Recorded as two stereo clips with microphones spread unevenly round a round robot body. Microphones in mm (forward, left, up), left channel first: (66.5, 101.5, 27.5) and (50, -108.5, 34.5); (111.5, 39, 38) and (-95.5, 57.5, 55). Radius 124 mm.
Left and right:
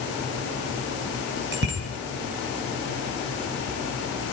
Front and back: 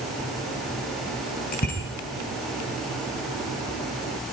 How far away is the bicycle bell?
About 6.5 m.